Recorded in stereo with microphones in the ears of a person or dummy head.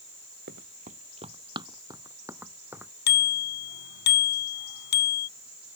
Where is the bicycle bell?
55° left (ahead or behind).